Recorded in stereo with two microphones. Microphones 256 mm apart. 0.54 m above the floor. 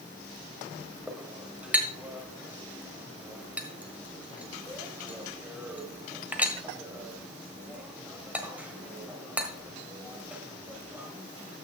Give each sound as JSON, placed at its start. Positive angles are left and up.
{"t": 1.1, "sound": "a clink", "side_deg": -5, "distance_m": 1.3}